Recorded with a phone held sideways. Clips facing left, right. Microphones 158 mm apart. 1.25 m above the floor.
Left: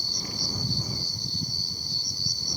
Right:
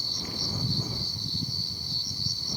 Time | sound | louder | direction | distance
0.0 | an insect | even | 40° left (ahead or behind) | ?